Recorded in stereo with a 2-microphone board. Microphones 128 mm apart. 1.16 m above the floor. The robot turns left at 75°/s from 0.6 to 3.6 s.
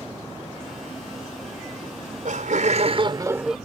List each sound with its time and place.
1.8 s laughter: 45° right; by 3.6 s 175° right